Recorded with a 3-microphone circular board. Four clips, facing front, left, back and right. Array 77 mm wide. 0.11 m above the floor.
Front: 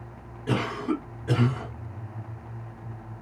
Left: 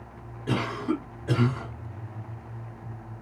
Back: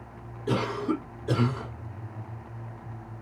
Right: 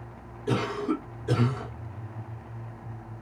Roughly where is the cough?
Ahead left.